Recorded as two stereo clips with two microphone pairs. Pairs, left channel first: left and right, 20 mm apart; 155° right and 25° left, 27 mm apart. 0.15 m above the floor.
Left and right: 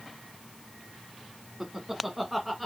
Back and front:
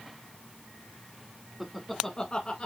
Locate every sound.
1.6 s laughter: 45° right, 1.1 m; by 2.7 s 175° left, 1.5 m